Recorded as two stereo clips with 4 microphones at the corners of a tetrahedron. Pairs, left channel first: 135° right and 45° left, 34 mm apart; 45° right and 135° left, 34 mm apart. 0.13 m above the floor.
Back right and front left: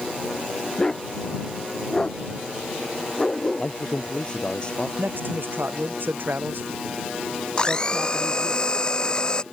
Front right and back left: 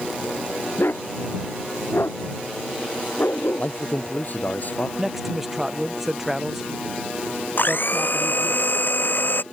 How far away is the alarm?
No alarm in this recording.